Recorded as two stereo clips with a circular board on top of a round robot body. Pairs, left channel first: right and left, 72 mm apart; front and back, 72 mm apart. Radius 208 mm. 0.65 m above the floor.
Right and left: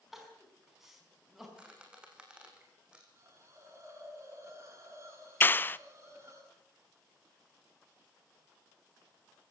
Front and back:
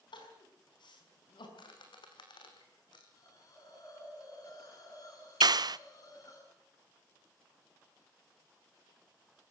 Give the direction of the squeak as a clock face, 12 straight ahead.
12 o'clock.